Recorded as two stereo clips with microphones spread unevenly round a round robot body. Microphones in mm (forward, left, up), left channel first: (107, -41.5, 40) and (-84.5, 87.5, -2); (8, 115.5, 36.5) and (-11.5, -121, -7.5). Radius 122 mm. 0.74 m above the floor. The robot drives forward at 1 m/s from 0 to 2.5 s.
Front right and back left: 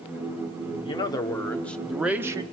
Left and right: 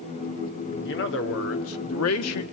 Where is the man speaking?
40° left, 2.5 m; by 2.4 s 80° left, 1.8 m.